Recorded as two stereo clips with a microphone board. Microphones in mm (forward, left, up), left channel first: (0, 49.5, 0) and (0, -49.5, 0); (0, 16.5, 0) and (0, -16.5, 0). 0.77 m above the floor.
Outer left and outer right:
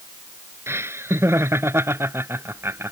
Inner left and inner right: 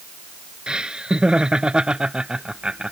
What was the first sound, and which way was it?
Laughter, 25° right (ahead or behind).